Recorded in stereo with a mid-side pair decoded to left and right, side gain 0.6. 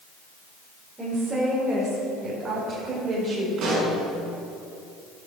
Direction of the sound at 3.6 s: 60° right.